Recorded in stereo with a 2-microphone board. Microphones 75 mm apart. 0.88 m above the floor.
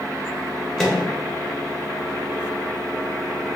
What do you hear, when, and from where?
0.8 s a microwave: 5° left (ahead or behind), 0.9 m